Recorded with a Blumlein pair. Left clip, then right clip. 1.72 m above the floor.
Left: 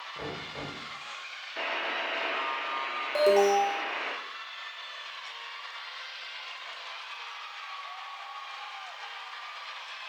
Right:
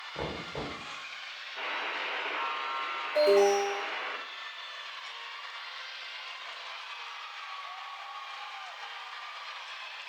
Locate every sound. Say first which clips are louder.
0.1 s knocking: right 3 dB; 25° right, 1.0 m
1.6 s a buzzer: left 3 dB; 65° left, 0.7 m
3.1 s an alarm: left 1 dB; 55° left, 0.9 m